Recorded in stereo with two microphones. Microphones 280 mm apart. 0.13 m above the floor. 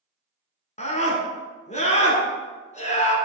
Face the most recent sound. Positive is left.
turn(degrees=25)  # may be behind; listen again after turning